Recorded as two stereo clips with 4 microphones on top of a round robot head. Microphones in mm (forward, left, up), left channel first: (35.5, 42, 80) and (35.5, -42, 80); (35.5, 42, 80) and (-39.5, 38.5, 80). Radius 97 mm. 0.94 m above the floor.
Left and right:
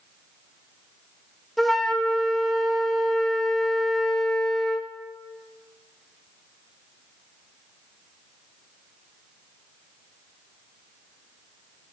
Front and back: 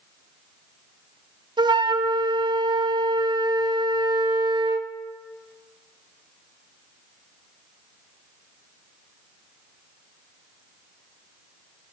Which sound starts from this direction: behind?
A flute, at 1.6 s.